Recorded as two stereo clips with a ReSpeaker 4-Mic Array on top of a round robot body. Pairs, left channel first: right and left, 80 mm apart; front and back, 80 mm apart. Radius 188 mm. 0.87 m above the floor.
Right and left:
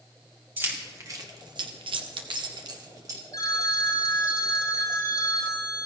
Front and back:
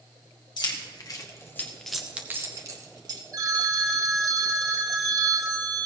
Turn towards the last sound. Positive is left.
turn(degrees=-135)